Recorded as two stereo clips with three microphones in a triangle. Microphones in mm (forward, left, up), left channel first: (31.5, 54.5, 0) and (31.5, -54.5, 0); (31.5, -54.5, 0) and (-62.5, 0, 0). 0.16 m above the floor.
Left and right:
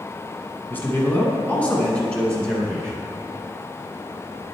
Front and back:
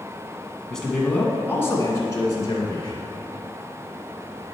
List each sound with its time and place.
0.7 s a man speaking: 50° left, 1.4 m; by 3.0 s 5° left, 2 m